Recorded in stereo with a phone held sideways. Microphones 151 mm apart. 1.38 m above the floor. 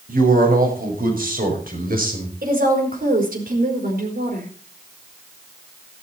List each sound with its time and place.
0.1 s a man speaking: 85° right, 6.5 m
2.4 s a woman speaking: 85° right, 4.5 m